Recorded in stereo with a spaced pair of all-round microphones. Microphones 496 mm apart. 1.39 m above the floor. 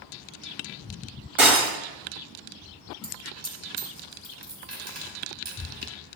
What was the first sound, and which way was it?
Breaking glass, 75° right (ahead or behind).